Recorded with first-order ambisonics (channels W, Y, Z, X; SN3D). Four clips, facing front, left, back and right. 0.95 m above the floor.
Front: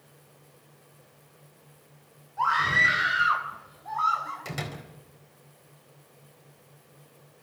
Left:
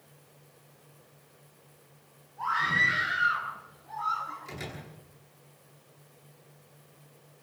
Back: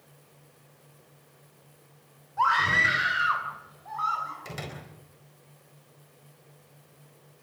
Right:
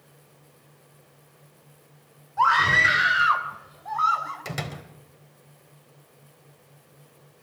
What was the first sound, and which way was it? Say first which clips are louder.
A scream: right 8 dB, even; 105° right.